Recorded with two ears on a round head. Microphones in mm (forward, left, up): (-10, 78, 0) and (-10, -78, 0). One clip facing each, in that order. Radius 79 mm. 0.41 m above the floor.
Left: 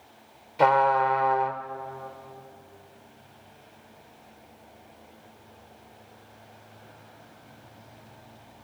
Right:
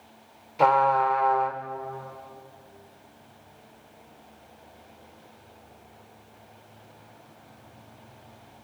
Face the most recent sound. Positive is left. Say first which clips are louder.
# even
turn(degrees=0)  # may be behind; listen again after turning